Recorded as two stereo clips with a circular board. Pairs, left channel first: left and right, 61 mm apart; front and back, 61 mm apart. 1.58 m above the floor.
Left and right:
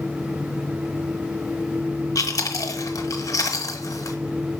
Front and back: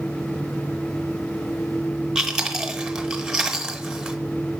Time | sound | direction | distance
2.1 | chewing | 100° left | 1.2 m